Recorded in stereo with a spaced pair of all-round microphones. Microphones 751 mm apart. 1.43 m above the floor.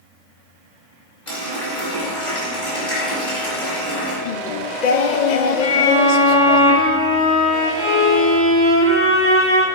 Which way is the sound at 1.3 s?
65° left (ahead or behind).